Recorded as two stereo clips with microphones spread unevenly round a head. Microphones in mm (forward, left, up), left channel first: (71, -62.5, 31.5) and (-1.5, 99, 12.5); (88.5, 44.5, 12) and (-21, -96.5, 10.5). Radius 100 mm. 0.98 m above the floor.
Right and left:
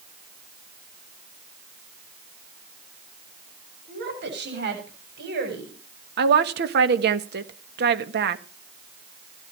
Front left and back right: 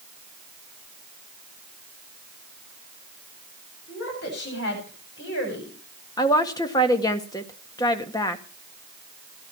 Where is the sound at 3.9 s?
95° left, 7 m; by 5.7 s 90° left, 8 m.